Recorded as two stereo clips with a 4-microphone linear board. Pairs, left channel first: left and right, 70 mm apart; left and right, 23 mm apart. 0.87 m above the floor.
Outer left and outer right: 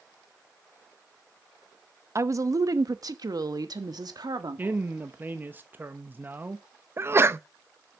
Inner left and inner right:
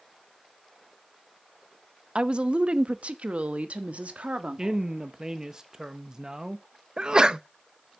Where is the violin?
No violin in this recording.